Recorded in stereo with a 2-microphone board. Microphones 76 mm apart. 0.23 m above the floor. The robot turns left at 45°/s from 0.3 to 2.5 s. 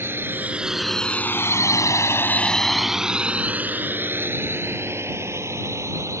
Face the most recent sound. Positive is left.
turn(degrees=-40)  # may be behind; listen again after turning